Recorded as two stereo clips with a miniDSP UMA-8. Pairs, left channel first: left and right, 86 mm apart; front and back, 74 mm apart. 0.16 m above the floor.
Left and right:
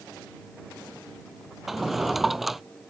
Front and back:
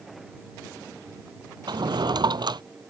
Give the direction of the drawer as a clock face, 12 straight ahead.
6 o'clock.